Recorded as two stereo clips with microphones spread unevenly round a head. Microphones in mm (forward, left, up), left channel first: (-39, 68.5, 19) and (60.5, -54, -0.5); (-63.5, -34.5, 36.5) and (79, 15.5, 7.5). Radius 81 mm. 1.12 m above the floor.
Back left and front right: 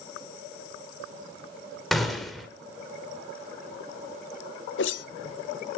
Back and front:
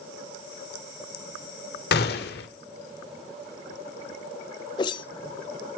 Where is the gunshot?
145° right, 1.9 m.